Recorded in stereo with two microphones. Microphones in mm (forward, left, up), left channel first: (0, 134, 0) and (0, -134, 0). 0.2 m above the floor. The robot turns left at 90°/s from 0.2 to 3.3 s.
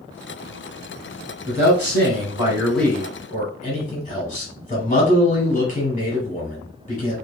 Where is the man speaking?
65° right, 1.3 m; by 7.1 s 130° left, 1.3 m.